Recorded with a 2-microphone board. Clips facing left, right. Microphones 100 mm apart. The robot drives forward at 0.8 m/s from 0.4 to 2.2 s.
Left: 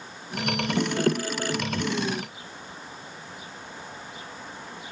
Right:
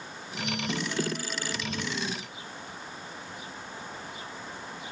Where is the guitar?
I don't hear a guitar.